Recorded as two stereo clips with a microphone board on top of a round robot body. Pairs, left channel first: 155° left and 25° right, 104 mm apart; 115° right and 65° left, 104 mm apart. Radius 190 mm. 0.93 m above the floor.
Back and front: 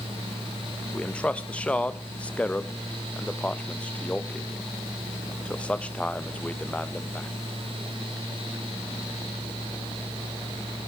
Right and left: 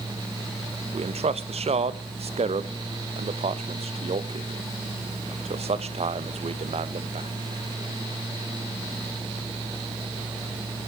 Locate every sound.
0.9 s a man speaking: 80° left, 1.0 m